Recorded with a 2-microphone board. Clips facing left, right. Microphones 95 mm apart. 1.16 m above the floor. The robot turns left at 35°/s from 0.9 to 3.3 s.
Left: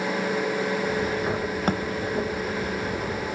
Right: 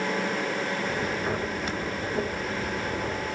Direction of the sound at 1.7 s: 55° left (ahead or behind).